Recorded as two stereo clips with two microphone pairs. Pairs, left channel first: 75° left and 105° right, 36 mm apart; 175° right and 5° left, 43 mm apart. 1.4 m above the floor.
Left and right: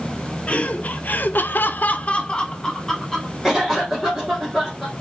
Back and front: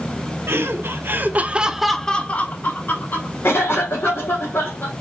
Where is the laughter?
20° left, 1.2 m; by 3.3 s 155° left, 1.4 m.